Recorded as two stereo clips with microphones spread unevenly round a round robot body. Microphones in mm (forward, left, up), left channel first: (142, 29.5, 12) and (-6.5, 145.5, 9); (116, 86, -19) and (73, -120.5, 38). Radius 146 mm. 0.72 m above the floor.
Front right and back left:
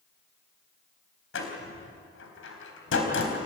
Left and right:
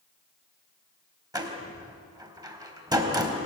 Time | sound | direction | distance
1.3 | a door slam | 25° right | 4 m